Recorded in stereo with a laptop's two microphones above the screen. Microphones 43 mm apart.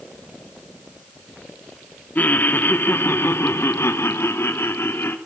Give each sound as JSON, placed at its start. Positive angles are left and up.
{"t": 2.1, "sound": "laughter", "side_deg": 40, "distance_m": 1.9}